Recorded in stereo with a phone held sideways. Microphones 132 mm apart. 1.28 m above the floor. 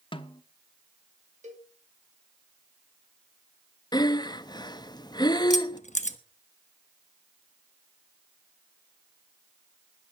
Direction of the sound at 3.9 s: 30° left (ahead or behind).